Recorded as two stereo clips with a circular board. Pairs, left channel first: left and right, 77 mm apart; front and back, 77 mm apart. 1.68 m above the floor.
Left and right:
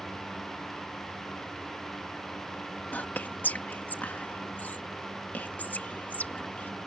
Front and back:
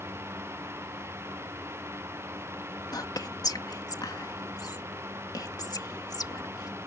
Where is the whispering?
25° left.